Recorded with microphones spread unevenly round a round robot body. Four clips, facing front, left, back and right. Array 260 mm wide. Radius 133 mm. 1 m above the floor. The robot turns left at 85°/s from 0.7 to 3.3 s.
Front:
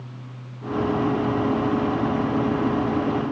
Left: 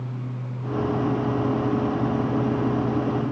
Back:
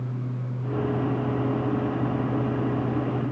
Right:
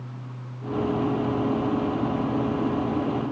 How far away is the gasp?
I don't hear a gasp.